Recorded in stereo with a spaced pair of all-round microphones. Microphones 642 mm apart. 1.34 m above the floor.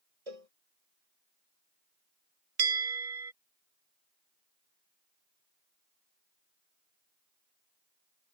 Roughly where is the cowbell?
Right.